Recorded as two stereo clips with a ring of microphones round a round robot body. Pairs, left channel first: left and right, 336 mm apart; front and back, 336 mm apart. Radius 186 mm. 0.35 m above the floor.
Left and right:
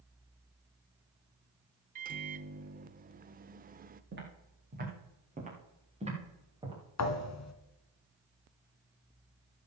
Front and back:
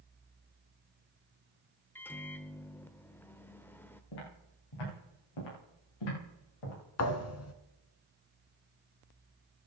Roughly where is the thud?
Ahead left.